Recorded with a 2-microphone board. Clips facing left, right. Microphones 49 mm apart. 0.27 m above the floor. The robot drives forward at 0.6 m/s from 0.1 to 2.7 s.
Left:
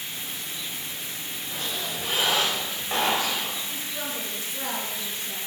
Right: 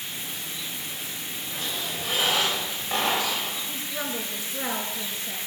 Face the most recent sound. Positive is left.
turn(degrees=-25)  # may be behind; listen again after turning